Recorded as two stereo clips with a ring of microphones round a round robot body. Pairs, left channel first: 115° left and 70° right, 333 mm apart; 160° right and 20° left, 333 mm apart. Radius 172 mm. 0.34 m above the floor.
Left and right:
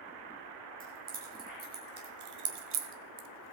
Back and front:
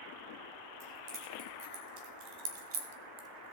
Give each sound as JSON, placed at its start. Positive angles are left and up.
{"t": 0.8, "sound": "keys jangling", "azimuth_deg": 0, "distance_m": 3.5}